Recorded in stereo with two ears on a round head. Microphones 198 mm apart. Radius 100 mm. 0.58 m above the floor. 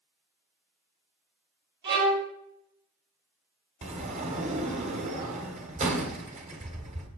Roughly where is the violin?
Right.